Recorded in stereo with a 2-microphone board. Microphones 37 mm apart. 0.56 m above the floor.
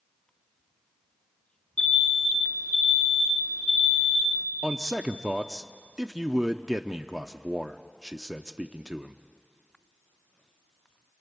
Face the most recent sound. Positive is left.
turn(degrees=-15)  # may be behind; listen again after turning